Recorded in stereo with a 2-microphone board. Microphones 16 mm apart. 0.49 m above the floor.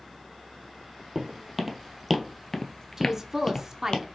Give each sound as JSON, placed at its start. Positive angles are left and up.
{"t": 1.1, "sound": "footsteps", "side_deg": -20, "distance_m": 1.1}
{"t": 3.0, "sound": "a woman speaking", "side_deg": -25, "distance_m": 0.7}